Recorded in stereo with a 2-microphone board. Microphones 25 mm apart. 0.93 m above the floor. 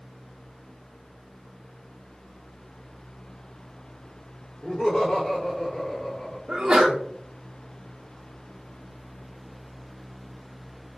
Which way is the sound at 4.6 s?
70° left (ahead or behind).